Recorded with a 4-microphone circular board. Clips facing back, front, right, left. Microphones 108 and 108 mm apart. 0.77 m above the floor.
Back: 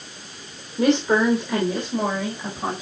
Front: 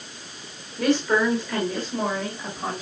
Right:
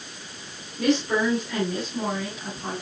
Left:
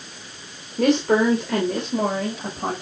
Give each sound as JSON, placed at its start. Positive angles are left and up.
{"t": 0.8, "sound": "a woman speaking", "azimuth_deg": 115, "distance_m": 3.0}